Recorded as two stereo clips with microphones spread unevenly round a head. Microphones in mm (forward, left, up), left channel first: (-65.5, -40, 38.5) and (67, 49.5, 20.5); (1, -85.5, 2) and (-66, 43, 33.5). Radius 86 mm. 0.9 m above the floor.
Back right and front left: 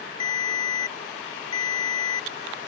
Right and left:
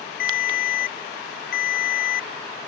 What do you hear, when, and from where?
0.2 s a ringtone: 85° right